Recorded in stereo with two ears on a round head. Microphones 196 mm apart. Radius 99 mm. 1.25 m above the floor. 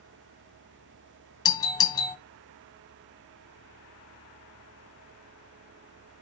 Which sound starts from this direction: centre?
A doorbell, at 1.4 s.